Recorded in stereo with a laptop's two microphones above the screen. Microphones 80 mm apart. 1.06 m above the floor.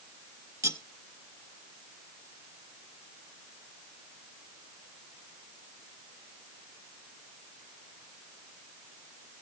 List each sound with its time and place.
0.6 s cutlery clinking: 40° right (ahead or behind), 1.5 m